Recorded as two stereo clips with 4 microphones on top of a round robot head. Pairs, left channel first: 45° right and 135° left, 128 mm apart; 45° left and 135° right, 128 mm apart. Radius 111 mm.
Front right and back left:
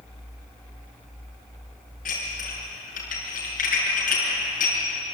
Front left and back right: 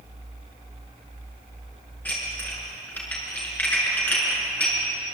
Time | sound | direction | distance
2.0 | dishes clattering | 30° right | 6.5 m